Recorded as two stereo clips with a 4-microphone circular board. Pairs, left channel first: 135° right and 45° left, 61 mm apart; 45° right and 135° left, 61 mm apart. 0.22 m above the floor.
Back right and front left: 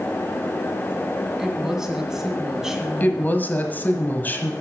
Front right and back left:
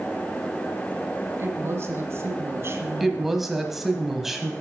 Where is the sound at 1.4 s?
125° left, 1.6 m.